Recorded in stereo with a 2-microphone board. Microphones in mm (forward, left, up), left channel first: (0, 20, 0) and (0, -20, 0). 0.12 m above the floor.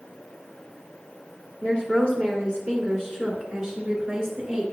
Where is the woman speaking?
30° left (ahead or behind), 1.8 m; by 4.6 s 5° right (ahead or behind), 2.0 m.